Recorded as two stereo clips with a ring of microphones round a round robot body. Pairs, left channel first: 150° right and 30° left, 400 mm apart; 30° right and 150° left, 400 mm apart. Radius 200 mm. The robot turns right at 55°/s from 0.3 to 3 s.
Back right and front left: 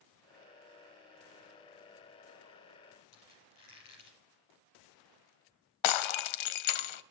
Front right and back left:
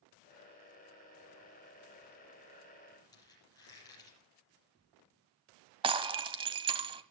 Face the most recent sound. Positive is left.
turn(degrees=-130)